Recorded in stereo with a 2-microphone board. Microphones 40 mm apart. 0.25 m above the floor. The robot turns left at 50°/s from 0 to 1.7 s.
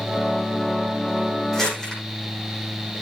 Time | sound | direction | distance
1.5 | crumpling | 5° left (ahead or behind) | 8.5 m